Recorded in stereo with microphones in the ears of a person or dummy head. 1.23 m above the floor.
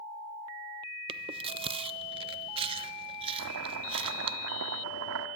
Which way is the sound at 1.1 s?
30° right (ahead or behind).